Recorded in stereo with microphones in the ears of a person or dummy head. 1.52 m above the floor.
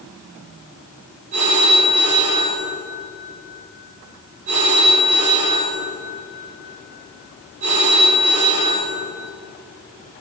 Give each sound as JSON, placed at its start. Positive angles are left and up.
{"t": 1.3, "sound": "a phone ringing", "side_deg": -40, "distance_m": 3.0}